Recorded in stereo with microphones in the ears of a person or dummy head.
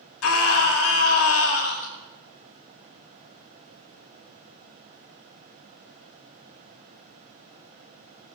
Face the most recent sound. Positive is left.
turn(degrees=70)  # may be behind; listen again after turning